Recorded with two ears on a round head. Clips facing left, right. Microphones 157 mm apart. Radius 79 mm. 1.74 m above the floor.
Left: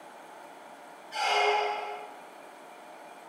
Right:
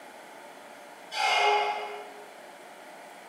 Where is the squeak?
40° right (ahead or behind), 1.2 m.